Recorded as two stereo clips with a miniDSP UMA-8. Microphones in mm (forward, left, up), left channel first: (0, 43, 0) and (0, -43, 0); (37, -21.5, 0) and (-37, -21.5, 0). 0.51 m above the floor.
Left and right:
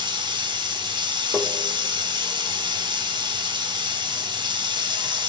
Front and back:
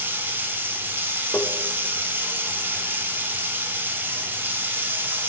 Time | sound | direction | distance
0.0 | running water | 115° right | 0.7 m
1.3 | tapping | 5° right | 0.5 m